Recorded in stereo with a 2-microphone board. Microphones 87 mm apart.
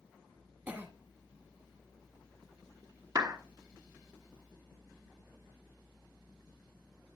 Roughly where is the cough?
Right.